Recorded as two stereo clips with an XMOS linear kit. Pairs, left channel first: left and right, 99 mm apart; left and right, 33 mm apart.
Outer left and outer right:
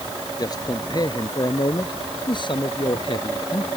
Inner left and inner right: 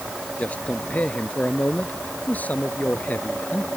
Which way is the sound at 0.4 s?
40° left (ahead or behind).